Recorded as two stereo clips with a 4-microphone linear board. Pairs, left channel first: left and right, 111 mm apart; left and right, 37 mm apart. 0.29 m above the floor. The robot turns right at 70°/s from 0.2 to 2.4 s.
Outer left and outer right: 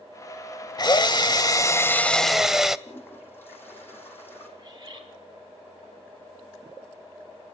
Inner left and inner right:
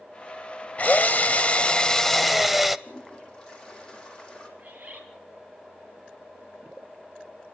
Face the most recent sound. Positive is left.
turn(degrees=-35)  # may be behind; listen again after turning